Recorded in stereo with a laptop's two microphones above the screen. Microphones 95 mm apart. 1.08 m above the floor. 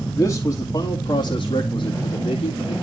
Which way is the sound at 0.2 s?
25° left (ahead or behind).